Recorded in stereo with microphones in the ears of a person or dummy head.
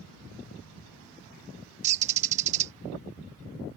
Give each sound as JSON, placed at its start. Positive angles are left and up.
{"t": 1.8, "sound": "a bird", "side_deg": -40}